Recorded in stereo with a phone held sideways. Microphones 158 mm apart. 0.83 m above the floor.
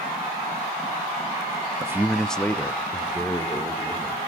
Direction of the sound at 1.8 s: 20° right (ahead or behind).